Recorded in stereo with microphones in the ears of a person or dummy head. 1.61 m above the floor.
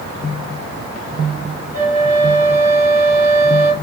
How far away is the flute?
About 1.7 m.